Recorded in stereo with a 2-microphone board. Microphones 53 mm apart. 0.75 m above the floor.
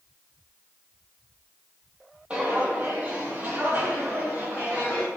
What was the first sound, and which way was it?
Footsteps, 25° right (ahead or behind).